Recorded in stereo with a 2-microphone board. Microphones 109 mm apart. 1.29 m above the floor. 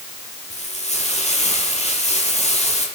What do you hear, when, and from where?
0.5 s frying: 75° left (ahead or behind), 6 m